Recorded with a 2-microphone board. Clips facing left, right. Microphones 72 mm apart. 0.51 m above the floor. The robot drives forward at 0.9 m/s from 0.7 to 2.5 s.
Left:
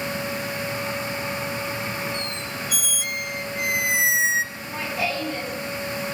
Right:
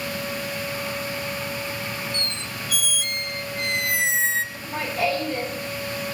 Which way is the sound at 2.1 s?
10° left (ahead or behind).